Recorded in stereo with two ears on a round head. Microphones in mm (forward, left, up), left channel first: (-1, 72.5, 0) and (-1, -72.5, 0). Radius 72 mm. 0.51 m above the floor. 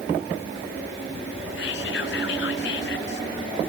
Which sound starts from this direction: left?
Whispering, at 1.6 s.